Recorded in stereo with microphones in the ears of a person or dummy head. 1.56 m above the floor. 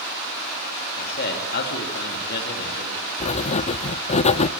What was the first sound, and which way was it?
A man speaking, 55° left (ahead or behind).